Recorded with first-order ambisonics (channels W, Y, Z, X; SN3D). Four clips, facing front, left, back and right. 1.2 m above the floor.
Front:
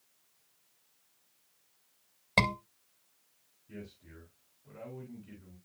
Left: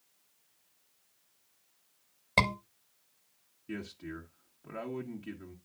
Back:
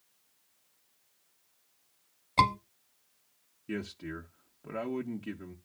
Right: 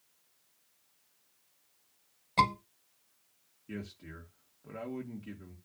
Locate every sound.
2.4 s a scream: 35° left, 6 m
3.7 s a man speaking: 170° left, 1.5 m